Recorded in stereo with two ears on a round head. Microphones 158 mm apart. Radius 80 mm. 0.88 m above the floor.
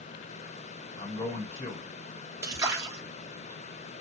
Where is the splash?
15° right (ahead or behind), 0.7 m.